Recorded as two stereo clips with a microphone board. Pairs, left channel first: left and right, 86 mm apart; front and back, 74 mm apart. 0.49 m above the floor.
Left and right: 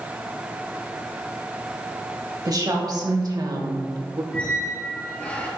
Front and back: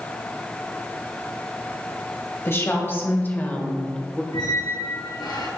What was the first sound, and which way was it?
A woman speaking, 55° right.